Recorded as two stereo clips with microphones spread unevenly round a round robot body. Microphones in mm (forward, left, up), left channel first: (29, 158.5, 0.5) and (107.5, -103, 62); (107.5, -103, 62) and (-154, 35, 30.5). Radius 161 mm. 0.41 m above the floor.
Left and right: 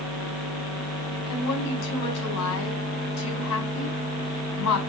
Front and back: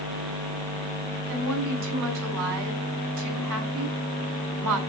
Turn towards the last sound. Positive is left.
turn(degrees=150)